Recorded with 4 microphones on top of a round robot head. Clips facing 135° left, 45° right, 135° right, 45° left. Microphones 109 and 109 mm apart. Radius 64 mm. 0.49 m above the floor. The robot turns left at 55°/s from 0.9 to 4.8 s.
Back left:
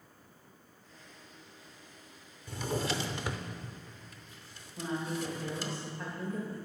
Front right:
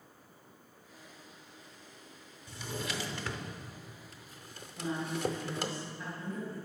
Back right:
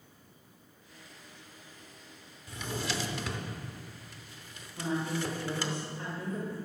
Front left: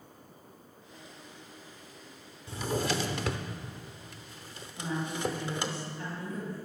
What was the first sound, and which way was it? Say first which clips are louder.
A drawer: back left 6 dB, front left 5 dB; 105° left.